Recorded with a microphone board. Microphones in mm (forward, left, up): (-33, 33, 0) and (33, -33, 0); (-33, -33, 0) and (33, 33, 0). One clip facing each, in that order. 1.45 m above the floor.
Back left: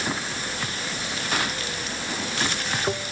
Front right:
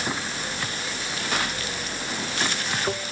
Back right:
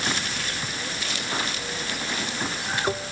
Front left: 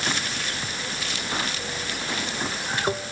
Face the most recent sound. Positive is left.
No sound to turn to.